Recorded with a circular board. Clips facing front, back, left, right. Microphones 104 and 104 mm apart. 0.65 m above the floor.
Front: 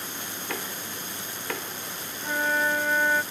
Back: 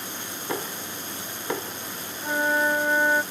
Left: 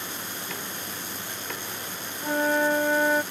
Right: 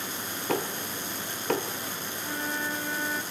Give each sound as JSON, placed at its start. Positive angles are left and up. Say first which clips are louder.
{"t": 0.5, "sound": "knocking", "louder": "back 5 dB, right 6 dB", "azimuth_deg": -115}
{"t": 2.2, "sound": "a flute", "louder": "back 2 dB, left 11 dB", "azimuth_deg": 110}